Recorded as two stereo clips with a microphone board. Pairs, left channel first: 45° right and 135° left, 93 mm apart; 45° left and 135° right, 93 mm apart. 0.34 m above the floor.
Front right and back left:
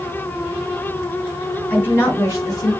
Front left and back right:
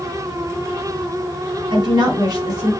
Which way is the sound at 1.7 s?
115° right.